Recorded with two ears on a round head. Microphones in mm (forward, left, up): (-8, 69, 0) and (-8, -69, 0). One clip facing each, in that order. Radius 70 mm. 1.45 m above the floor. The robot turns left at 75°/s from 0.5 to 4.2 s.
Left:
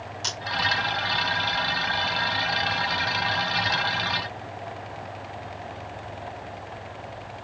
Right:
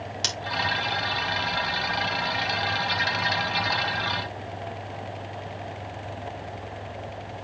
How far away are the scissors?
About 3 m.